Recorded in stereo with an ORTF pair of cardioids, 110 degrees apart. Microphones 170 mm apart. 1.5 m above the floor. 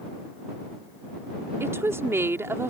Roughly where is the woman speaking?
Ahead.